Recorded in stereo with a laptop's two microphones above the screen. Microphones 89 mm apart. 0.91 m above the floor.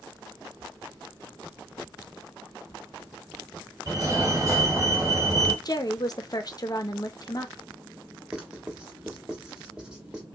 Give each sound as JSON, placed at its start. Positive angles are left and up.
{"t": 3.9, "sound": "a fire alarm", "side_deg": -30, "distance_m": 3.0}
{"t": 5.7, "sound": "a woman speaking", "side_deg": 45, "distance_m": 0.8}
{"t": 8.3, "sound": "writing", "side_deg": -10, "distance_m": 1.4}